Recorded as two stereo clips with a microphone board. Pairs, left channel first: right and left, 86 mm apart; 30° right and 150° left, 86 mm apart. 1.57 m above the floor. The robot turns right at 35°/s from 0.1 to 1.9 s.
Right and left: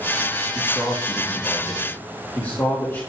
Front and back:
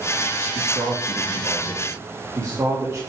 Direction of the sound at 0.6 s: 165° left.